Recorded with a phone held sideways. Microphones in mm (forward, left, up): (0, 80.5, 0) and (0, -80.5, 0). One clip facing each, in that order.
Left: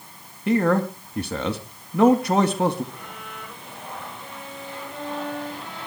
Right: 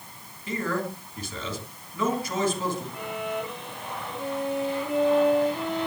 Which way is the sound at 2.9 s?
75° right (ahead or behind).